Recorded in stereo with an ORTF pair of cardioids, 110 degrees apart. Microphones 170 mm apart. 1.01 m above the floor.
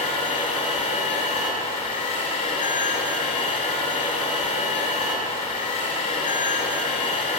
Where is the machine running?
40° left, 3.5 m.